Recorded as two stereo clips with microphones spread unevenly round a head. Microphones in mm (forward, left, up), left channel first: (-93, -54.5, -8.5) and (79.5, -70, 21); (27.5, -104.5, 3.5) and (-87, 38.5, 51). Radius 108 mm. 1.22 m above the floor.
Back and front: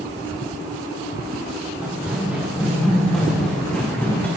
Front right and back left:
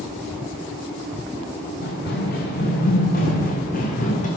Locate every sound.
1.8 s running footsteps: 85° right, 5.5 m; by 4.3 s 105° right, 4 m